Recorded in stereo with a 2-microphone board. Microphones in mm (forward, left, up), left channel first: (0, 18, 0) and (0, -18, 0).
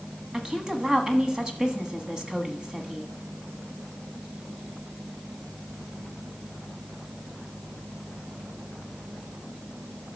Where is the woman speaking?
20° right (ahead or behind), 1.1 m.